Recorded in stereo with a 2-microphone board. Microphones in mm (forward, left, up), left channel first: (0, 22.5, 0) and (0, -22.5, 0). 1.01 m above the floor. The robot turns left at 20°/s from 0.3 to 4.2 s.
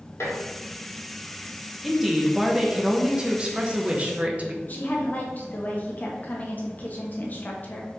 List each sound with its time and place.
0.2 s dishes clattering: 85° left, 1.7 m
1.8 s a woman speaking: straight ahead, 0.8 m; by 4.5 s 50° right, 0.8 m
4.6 s a woman speaking: 40° left (ahead or behind), 1.1 m